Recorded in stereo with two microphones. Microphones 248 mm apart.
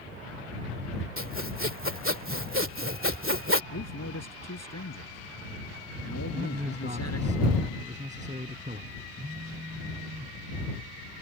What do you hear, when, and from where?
1.2 s sawing: 55° right (ahead or behind)
3.7 s a man speaking: 80° left
6.3 s a man speaking: 30° right (ahead or behind)
9.2 s a phone buzzing: 20° right (ahead or behind)